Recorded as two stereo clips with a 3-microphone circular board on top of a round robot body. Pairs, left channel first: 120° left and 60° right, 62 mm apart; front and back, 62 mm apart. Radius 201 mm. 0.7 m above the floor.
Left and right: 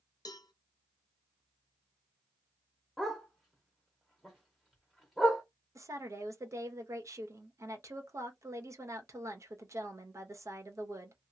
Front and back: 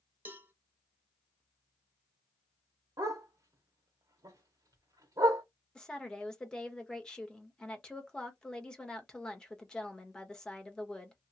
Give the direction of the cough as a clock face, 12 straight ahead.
No cough in this recording.